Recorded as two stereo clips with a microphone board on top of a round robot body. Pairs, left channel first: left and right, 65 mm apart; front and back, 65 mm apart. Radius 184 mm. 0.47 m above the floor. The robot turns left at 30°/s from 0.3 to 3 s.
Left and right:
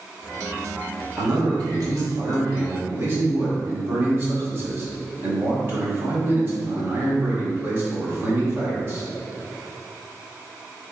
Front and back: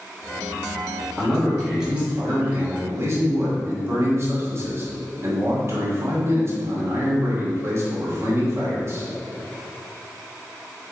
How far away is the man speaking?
About 1.7 m.